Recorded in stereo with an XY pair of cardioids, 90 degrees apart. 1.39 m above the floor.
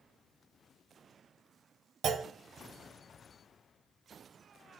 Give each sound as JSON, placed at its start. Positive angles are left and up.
{"t": 2.0, "sound": "a clunk", "azimuth_deg": -70, "distance_m": 0.7}